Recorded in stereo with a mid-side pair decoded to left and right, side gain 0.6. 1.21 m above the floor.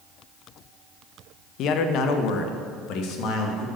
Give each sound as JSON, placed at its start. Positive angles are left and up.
{"t": 1.6, "sound": "a man speaking", "azimuth_deg": 60, "distance_m": 0.9}